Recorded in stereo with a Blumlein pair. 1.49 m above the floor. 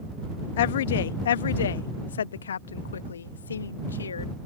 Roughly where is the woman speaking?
Ahead left.